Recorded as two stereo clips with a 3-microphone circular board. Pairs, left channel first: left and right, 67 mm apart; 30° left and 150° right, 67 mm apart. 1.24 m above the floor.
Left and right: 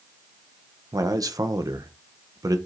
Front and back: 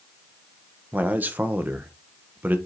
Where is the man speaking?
90° right, 1.0 m.